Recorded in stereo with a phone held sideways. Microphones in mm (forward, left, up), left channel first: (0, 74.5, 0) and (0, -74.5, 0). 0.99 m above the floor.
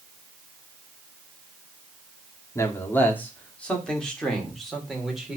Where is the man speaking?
20° left (ahead or behind), 2 m; by 5.4 s 5° right (ahead or behind), 3 m.